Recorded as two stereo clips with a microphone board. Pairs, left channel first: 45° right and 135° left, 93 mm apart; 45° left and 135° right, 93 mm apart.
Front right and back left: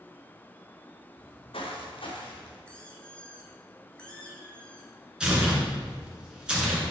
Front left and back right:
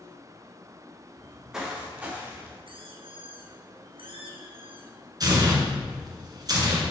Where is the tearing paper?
150° right, 2.5 m.